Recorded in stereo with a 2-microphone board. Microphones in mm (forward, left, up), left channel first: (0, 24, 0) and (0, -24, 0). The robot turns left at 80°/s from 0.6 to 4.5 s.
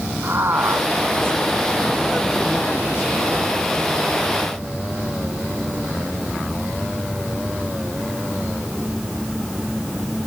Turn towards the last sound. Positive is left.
turn(degrees=-20)